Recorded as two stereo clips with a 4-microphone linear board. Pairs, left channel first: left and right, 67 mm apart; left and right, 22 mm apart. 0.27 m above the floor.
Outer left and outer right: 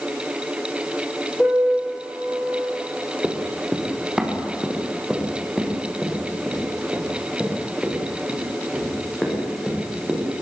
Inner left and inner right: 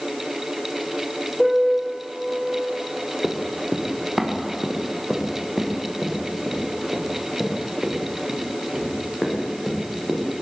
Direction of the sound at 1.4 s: 15° left (ahead or behind).